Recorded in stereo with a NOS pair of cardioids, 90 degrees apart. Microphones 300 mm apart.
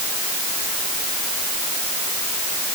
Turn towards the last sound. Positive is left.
No sound to turn to.